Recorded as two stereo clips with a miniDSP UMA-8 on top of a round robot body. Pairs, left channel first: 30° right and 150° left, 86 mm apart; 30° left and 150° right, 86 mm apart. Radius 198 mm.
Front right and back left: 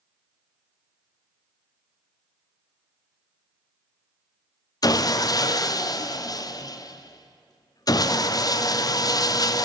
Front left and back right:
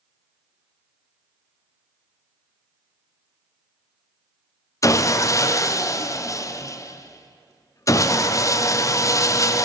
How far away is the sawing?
About 0.5 m.